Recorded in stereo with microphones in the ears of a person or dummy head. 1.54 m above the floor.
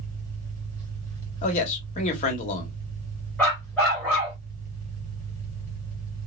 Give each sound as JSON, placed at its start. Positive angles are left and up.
{"t": 0.0, "sound": "an engine running", "side_deg": -40, "distance_m": 2.0}
{"t": 1.4, "sound": "a man speaking", "side_deg": 40, "distance_m": 1.3}
{"t": 3.4, "sound": "a dog barking", "side_deg": 5, "distance_m": 1.9}